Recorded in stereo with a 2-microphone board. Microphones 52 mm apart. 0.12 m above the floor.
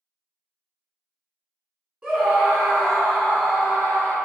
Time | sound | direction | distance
2.0 | a scream | 20° right (ahead or behind) | 1.4 m